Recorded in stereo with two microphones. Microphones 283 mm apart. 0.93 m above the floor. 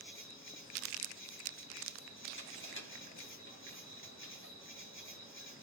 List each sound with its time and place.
0.0 s an insect: 45° left (ahead or behind), 2 m
2.4 s crushing: 40° left (ahead or behind), 1.9 m